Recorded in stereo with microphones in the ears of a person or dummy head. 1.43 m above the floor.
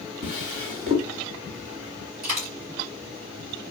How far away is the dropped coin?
About 2.5 m.